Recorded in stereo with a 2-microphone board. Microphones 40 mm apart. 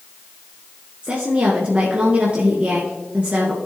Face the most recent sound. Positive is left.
turn(degrees=-35)  # may be behind; listen again after turning